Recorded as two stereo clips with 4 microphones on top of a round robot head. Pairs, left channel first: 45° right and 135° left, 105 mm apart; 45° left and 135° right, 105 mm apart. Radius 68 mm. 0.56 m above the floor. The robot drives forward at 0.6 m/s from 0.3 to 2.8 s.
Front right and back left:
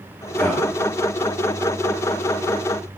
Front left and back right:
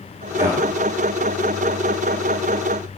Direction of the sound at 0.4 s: 110° right.